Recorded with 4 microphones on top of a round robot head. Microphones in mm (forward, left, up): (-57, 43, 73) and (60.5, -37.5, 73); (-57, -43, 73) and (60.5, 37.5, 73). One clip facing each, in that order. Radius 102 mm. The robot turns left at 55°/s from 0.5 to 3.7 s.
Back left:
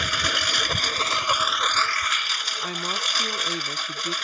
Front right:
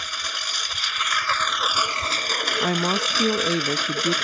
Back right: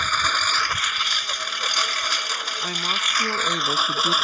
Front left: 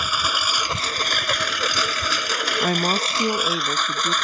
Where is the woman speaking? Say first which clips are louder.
Front right 8 dB, front left 10 dB; 5° left; by 4.2 s 55° right.